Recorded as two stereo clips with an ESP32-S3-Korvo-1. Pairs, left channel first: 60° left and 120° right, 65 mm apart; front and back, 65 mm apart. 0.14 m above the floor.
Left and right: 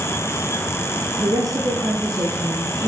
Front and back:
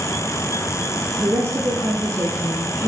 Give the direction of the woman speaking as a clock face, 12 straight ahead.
5 o'clock.